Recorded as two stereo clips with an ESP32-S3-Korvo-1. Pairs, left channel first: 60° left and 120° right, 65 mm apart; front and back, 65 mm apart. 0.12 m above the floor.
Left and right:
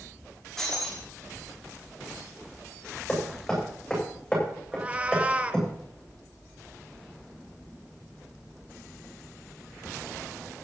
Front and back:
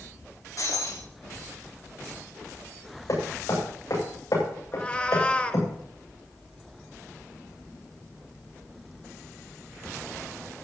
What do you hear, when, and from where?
0.6 s breaking glass: 20° right, 6 m
3.1 s hammering: 20° right, 8 m
4.7 s a cat meowing: 60° right, 0.8 m